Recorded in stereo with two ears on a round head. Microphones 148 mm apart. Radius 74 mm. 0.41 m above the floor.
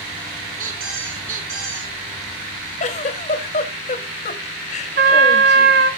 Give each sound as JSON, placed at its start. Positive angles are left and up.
{"t": 0.6, "sound": "a squeak", "side_deg": -50, "distance_m": 4.0}
{"t": 2.8, "sound": "a giggle", "side_deg": 45, "distance_m": 2.0}
{"t": 5.0, "sound": "a trumpet", "side_deg": -65, "distance_m": 2.0}